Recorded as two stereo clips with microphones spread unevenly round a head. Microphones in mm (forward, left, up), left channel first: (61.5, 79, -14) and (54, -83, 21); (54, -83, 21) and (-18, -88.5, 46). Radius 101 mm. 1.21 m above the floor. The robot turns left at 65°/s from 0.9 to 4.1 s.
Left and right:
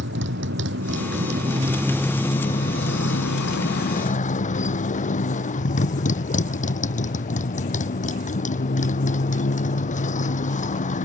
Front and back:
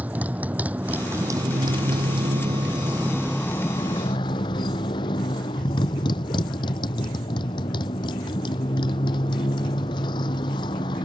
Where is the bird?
No bird in this recording.